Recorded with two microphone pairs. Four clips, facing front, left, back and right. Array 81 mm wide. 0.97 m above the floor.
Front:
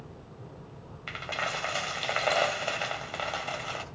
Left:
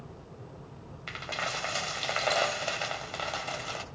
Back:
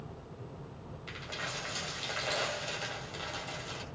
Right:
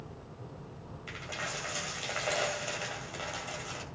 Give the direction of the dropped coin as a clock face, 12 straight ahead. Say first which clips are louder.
Left 5 dB, front 8 dB; 11 o'clock.